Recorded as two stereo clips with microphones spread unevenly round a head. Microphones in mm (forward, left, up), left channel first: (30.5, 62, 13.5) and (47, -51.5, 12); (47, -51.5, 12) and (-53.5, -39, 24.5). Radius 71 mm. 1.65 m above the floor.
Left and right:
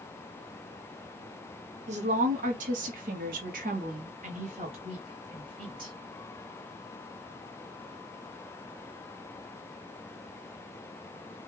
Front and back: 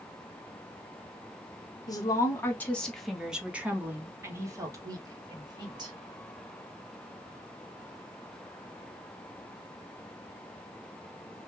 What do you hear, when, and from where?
1.9 s a woman speaking: 60° right, 1.1 m; by 6.0 s 140° right, 2 m